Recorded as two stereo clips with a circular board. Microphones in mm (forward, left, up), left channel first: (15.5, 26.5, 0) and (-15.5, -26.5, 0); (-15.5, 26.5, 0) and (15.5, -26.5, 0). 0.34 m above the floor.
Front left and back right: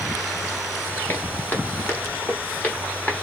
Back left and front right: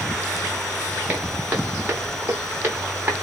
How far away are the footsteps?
About 2.5 m.